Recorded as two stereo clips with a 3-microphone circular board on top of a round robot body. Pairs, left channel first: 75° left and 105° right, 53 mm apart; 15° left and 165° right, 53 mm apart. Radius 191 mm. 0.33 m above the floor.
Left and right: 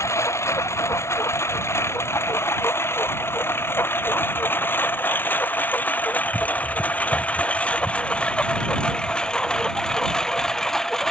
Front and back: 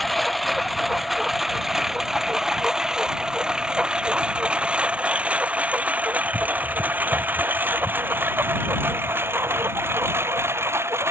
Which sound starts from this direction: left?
A lawn mower, at 0.0 s.